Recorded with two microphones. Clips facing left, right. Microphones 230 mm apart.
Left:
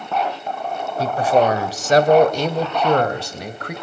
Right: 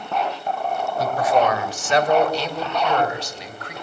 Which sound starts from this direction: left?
A man speaking, at 1.0 s.